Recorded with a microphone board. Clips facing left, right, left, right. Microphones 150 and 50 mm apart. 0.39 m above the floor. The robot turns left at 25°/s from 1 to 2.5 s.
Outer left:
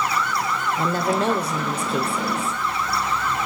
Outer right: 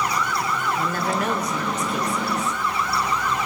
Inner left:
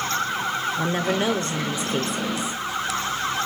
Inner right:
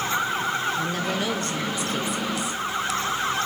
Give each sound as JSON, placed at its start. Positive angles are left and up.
{"t": 0.8, "sound": "a woman speaking", "side_deg": 25, "distance_m": 0.9}